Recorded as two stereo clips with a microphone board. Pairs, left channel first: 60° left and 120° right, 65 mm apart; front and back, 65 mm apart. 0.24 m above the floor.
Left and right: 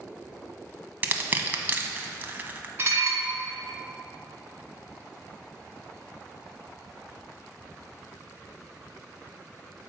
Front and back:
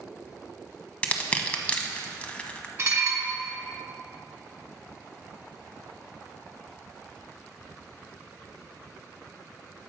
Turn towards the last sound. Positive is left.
turn(degrees=-155)